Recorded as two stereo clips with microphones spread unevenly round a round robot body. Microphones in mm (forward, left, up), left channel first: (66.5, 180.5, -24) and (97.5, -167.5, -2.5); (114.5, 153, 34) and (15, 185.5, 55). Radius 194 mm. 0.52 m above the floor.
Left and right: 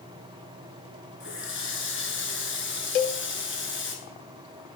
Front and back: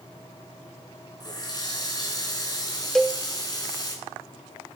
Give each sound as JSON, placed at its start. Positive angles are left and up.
{"t": 1.2, "sound": "a running tap", "azimuth_deg": 35, "distance_m": 5.0}
{"t": 3.0, "sound": "a cowbell", "azimuth_deg": 70, "distance_m": 0.9}